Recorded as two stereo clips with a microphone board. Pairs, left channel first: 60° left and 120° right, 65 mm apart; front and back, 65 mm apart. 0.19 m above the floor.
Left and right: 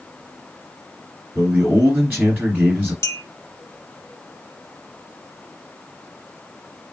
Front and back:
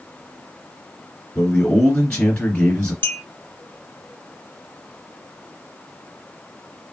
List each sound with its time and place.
1.4 s a man speaking: 70° right, 1.8 m
3.0 s a clink: 45° left, 0.9 m